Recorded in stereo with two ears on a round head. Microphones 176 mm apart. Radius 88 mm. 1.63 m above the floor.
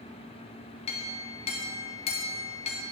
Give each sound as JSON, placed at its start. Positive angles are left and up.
{"t": 0.9, "sound": "a clink", "side_deg": 30, "distance_m": 0.5}